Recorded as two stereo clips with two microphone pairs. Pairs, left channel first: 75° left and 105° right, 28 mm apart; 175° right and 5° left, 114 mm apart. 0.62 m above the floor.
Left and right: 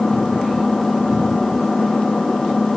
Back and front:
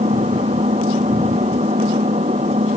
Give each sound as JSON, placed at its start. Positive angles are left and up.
{"t": 0.0, "sound": "an engine running", "azimuth_deg": 0}